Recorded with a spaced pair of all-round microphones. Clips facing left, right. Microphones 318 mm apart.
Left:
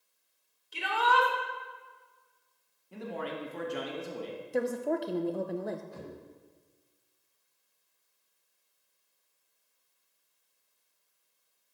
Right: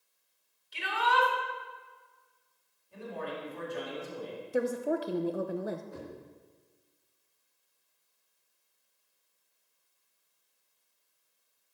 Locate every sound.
0.7 s a shout: 55° left (ahead or behind), 3 m
2.9 s a man speaking: 80° left, 2 m
4.5 s a woman speaking: 5° right (ahead or behind), 0.6 m
5.9 s knocking: 60° right (ahead or behind), 4.5 m